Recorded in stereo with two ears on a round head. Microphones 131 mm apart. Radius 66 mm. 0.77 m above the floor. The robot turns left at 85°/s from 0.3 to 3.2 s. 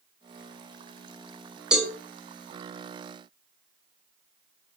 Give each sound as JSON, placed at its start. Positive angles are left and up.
{"t": 1.7, "sound": "a cowbell", "side_deg": -5, "distance_m": 0.5}